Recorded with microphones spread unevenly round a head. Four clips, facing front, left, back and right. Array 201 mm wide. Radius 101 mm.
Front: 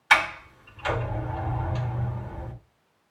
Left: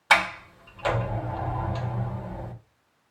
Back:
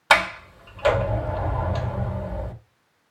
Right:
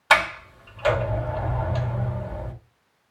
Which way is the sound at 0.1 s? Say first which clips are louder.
Right 2 dB, back 3 dB; 175° right.